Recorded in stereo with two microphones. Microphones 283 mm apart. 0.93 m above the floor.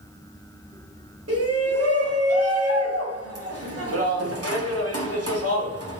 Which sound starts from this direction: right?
A shout, at 1.3 s.